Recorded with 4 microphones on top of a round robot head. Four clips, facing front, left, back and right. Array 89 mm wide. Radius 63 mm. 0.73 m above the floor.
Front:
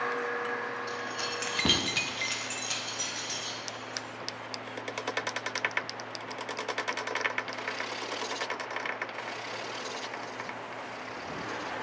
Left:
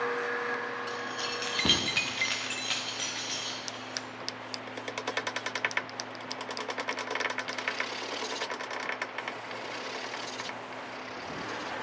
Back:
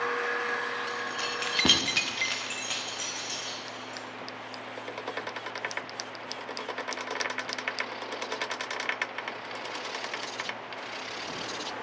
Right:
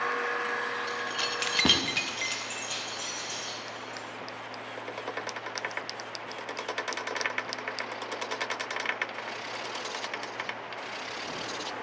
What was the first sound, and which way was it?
Keys jangling, 85° right.